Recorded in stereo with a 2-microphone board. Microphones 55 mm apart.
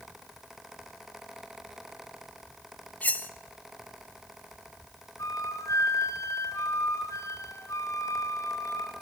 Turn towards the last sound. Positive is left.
turn(degrees=85)